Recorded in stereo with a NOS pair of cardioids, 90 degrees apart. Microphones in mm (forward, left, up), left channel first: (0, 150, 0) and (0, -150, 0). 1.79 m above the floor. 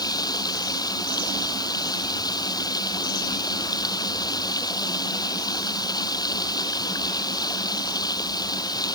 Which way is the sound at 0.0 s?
15° left.